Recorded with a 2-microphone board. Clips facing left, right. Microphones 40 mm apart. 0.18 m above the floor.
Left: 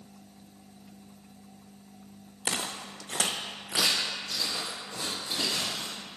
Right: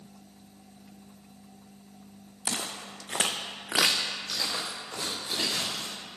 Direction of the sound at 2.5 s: 30° left (ahead or behind).